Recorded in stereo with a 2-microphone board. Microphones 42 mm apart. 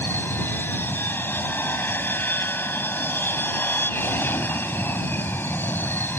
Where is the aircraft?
55° left (ahead or behind).